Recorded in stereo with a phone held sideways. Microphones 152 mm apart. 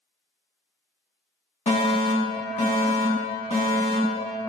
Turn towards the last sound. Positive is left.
turn(degrees=50)  # may be behind; listen again after turning